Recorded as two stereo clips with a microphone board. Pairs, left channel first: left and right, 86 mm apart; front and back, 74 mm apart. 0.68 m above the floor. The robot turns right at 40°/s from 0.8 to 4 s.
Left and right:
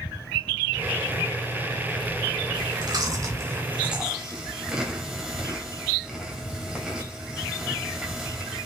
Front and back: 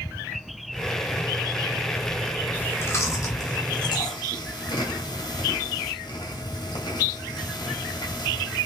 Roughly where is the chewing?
Ahead right.